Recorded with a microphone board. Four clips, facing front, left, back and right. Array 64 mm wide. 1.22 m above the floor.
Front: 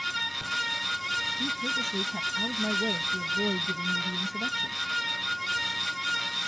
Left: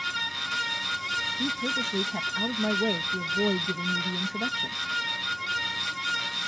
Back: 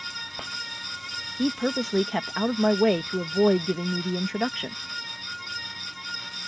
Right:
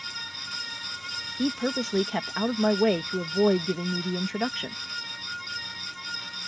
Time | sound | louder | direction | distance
1.4 | a woman speaking | right 2 dB, back 5 dB | 150° right | ?